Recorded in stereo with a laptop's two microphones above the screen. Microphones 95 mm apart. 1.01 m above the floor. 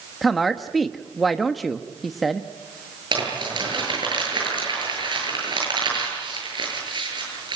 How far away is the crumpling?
About 9 m.